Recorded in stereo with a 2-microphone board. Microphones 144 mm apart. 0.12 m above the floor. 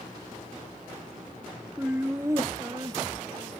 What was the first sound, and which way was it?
Laughter, 10° right (ahead or behind).